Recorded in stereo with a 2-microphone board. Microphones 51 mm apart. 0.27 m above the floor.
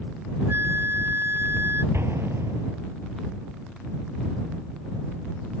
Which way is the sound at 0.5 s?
50° right (ahead or behind).